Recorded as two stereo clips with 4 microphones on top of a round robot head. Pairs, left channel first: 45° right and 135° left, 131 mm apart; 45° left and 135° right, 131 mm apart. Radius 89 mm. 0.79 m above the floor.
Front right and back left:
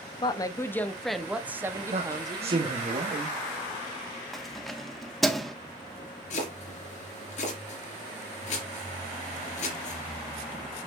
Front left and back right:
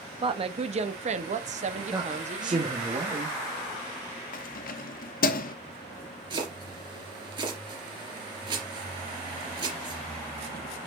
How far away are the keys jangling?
About 0.9 m.